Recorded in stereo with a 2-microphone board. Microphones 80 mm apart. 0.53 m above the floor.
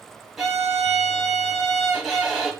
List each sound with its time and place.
0.4 s a violin: centre (ahead or behind), 0.7 m